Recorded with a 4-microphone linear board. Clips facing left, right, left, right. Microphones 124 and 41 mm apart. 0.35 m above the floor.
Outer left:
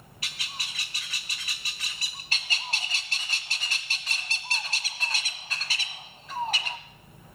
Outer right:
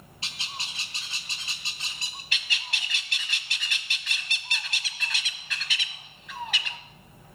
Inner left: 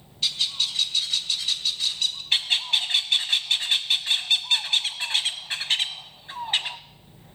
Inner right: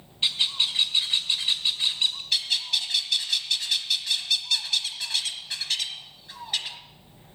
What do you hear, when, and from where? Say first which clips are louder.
0.2 s a bird: outer right 1 dB, inner right 1 dB; 25° right (ahead or behind), 1.4 m
2.3 s a bird: outer left 2 dB, inner left 3 dB; 35° left (ahead or behind), 0.8 m